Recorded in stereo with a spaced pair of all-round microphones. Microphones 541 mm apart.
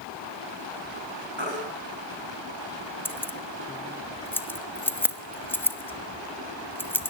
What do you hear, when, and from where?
1.4 s a baby crying: 55° right (ahead or behind), 6.5 m
3.0 s keys jangling: 5° left (ahead or behind), 1.0 m